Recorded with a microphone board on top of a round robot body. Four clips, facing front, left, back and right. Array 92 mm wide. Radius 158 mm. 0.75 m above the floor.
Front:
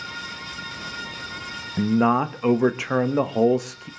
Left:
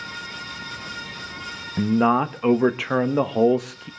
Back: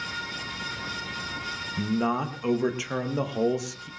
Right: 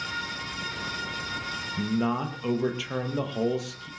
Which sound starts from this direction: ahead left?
A man speaking, at 1.8 s.